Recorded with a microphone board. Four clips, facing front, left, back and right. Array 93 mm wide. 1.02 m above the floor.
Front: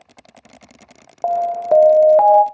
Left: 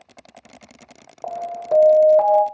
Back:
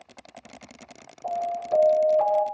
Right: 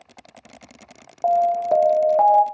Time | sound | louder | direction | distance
1.2 | an alarm | right 8 dB, front 10 dB | 10° right | 0.6 m